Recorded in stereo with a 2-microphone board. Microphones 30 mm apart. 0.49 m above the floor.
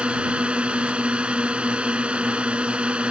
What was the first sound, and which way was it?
A drone, 40° right (ahead or behind).